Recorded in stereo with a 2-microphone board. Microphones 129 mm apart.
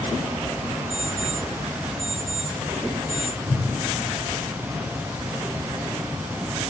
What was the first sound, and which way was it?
An alarm clock, 35° right (ahead or behind).